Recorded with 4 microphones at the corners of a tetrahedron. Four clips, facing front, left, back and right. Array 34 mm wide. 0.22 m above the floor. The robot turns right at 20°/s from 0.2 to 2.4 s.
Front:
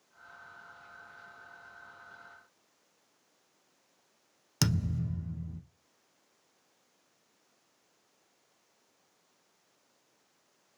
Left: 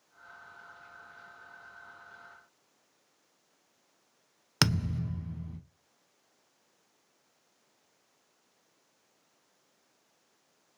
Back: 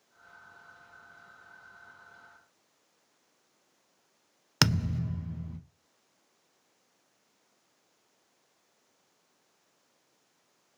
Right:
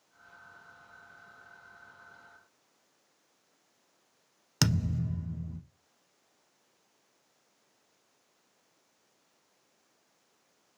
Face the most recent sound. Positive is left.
turn(degrees=150)